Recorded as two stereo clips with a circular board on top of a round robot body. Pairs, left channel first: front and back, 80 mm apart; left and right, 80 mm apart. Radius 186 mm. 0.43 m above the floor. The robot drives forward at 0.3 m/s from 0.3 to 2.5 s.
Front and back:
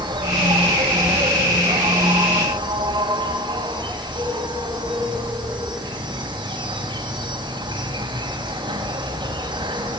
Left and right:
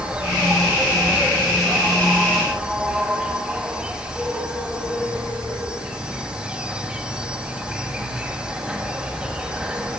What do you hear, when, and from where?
0.0 s an insect: 170° right, 6.5 m